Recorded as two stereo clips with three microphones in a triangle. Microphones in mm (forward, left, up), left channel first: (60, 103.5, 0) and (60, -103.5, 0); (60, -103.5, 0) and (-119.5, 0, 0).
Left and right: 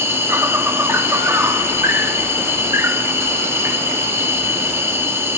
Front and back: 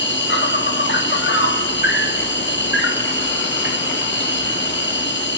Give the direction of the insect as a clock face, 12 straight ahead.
12 o'clock.